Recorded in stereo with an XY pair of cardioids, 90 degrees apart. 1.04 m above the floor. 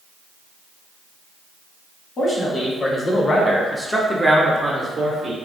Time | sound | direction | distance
2.2 | a man speaking | 55° left | 1.3 m